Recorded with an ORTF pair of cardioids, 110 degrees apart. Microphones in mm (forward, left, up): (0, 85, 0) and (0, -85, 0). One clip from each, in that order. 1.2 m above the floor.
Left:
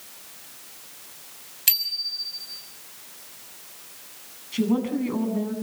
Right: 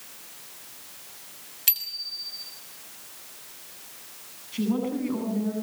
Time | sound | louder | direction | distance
1.7 | a bicycle bell | left 5 dB | 15° left | 6 m
4.5 | a woman speaking | left 3 dB | 25° left | 8.5 m